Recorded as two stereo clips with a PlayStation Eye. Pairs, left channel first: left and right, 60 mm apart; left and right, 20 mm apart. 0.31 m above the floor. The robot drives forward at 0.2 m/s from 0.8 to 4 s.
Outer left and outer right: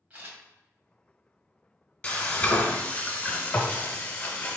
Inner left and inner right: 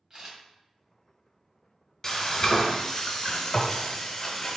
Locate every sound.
0.1 s a camera shutter: 25° right (ahead or behind), 1.7 m
2.0 s frying: 20° left (ahead or behind), 1.3 m; by 4.6 s 30° left (ahead or behind), 1.0 m